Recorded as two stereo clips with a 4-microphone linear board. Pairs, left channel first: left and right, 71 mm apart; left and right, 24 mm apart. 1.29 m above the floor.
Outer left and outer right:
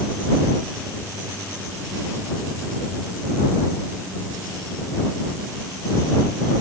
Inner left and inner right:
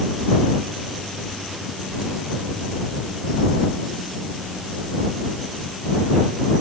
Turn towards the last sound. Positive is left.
No sound to turn to.